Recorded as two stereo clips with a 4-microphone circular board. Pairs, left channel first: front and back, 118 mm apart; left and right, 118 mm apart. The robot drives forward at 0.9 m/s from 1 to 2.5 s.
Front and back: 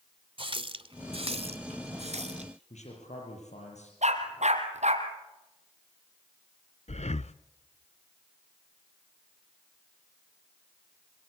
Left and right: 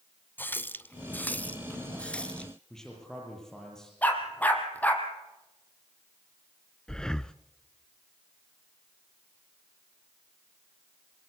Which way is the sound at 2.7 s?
5° left.